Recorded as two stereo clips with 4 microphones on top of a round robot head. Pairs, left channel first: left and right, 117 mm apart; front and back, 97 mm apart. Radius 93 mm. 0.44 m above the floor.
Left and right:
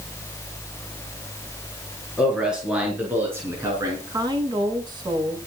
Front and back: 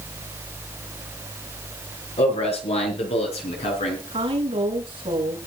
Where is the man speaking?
5° right, 6.5 m; by 4.0 s 25° right, 5.5 m.